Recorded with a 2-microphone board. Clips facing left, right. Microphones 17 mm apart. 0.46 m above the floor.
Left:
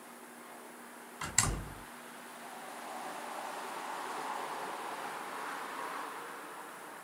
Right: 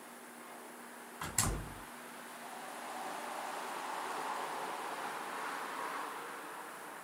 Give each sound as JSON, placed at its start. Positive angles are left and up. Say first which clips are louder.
{"t": 1.2, "sound": "a door slam", "louder": "left 3 dB", "side_deg": 40, "distance_m": 1.5}